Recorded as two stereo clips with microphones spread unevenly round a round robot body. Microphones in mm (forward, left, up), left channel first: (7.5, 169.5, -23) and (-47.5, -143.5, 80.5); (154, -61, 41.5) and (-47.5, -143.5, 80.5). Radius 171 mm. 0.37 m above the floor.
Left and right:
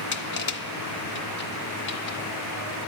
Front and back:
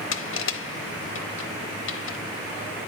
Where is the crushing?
35° left, 0.9 m.